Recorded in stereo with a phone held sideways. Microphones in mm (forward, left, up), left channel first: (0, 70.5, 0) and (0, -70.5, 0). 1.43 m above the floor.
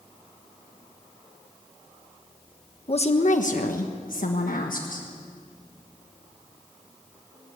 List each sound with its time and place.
2.9 s a woman speaking: 45° left (ahead or behind), 1.3 m; by 5.1 s 70° left (ahead or behind), 1.8 m